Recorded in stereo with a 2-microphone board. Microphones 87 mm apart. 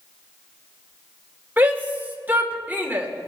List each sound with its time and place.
1.6 s a shout: 20° right (ahead or behind), 1.7 m